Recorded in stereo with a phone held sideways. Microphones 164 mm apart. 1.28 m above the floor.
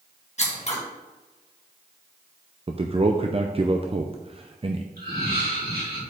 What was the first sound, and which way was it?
Scissors, 45° left (ahead or behind).